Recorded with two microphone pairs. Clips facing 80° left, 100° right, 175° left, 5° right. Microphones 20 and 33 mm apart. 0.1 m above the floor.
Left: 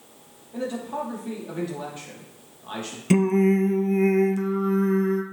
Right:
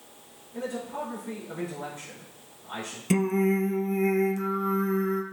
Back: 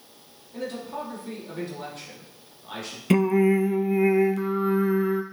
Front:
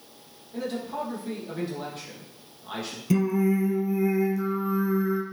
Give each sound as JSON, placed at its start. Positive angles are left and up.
{"t": 0.5, "sound": "a man speaking", "azimuth_deg": 80, "distance_m": 3.0}
{"t": 3.1, "sound": "singing", "azimuth_deg": 150, "distance_m": 0.5}